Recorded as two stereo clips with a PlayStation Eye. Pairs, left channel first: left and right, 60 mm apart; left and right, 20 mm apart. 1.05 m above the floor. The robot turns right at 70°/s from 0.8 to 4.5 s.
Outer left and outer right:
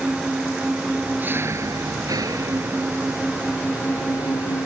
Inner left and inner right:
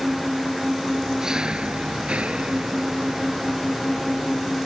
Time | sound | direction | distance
0.0 | an engine running | straight behind | ?